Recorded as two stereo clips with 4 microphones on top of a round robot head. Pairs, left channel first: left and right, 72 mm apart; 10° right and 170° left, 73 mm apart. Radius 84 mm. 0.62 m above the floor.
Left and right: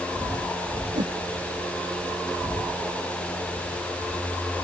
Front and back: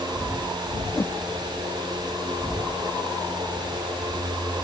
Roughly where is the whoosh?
Right.